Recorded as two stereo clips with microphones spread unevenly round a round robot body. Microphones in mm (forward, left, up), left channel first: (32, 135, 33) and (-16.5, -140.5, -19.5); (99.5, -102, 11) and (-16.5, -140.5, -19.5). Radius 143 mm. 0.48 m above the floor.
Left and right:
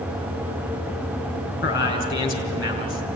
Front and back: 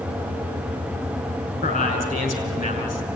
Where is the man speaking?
30° left, 5.5 m.